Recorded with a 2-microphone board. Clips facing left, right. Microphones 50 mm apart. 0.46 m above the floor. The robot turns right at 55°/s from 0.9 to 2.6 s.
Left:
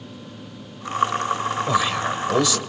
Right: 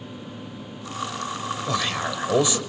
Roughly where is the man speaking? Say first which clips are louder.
Left 3 dB; behind.